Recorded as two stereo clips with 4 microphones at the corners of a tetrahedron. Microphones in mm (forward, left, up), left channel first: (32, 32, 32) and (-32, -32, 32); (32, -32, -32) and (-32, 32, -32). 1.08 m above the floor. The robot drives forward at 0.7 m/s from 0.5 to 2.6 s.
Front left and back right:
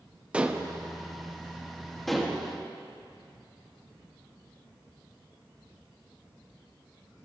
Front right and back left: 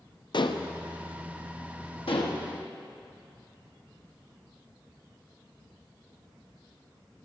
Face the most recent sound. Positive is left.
turn(degrees=-60)